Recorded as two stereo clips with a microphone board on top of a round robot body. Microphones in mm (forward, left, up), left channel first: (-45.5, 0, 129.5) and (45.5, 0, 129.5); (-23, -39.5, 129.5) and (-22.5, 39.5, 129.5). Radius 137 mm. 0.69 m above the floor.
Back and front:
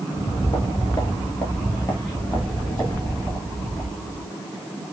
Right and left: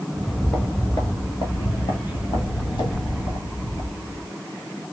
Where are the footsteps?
155° left, 0.7 m; by 4.3 s 95° right, 2.5 m.